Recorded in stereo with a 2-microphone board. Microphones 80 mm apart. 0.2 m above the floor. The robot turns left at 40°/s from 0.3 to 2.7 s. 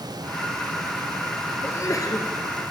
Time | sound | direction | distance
1.6 | a sneeze | 30° left (ahead or behind) | 3.5 m